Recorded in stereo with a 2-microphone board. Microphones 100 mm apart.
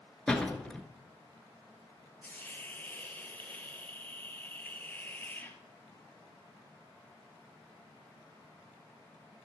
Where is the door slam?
10° left (ahead or behind), 1.0 m.